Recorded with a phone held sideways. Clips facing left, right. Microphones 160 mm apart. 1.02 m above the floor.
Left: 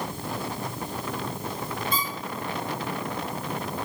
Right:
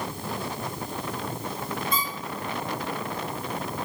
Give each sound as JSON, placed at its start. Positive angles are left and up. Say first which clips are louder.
{"t": 1.9, "sound": "a squeak", "louder": "even", "side_deg": 30, "distance_m": 1.4}